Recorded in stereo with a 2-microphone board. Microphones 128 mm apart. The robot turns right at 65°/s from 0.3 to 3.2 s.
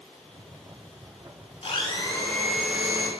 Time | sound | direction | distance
1.6 | a blender | 120° left | 0.8 m